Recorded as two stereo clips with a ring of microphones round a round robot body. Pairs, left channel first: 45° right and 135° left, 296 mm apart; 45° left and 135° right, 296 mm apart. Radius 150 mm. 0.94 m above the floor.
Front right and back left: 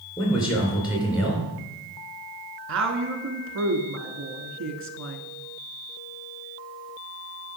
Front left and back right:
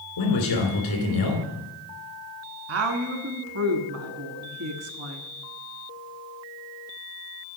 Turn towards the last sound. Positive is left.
turn(degrees=-175)